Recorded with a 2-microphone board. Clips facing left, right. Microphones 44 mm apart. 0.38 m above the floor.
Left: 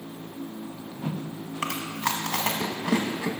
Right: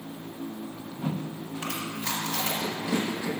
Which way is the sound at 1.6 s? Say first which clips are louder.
Left 5 dB; 80° left.